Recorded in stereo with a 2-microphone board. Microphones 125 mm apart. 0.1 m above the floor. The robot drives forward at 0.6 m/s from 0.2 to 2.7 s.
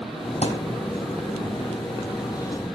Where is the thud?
60° left (ahead or behind), 1.0 m; by 0.7 s 50° left (ahead or behind), 1.1 m.